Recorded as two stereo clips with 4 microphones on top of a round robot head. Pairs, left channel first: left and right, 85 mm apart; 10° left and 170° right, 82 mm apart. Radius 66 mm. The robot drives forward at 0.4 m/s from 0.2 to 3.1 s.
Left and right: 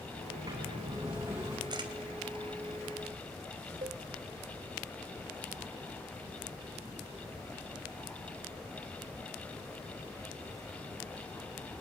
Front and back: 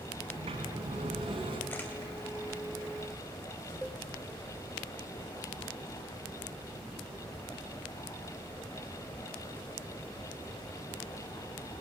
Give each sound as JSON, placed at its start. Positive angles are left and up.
{"t": 0.3, "sound": "a sliding door", "azimuth_deg": -150, "distance_m": 5.0}
{"t": 1.7, "sound": "a camera shutter", "azimuth_deg": -60, "distance_m": 3.0}
{"t": 3.8, "sound": "a cowbell", "azimuth_deg": -80, "distance_m": 2.0}